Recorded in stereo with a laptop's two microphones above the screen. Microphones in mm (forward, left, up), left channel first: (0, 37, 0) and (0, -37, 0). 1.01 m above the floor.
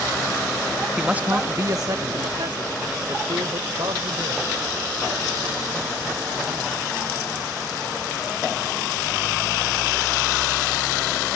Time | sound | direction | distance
1.0 | a man speaking | 10° right (ahead or behind) | ?